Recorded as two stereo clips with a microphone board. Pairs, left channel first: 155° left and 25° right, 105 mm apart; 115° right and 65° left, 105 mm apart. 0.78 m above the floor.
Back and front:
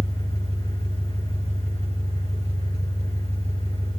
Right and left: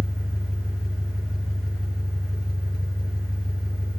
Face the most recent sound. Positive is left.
turn(degrees=-25)